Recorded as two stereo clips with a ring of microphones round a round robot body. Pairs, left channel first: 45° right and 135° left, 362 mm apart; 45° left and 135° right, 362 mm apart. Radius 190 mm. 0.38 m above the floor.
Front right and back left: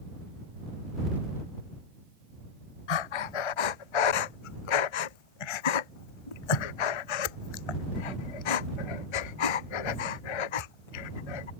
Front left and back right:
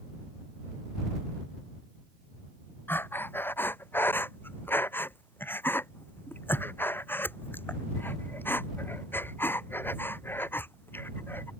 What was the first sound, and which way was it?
Breathing, 40° right.